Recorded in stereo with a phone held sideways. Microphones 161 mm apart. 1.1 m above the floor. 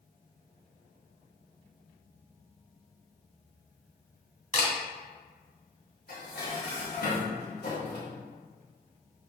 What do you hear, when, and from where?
4.5 s a camera shutter: 50° left (ahead or behind), 2 m
6.1 s dishes clattering: 65° left (ahead or behind), 3 m